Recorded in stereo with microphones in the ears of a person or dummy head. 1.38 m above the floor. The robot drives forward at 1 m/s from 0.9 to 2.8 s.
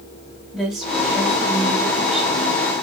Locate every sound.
0.5 s a woman speaking: centre (ahead or behind), 5 m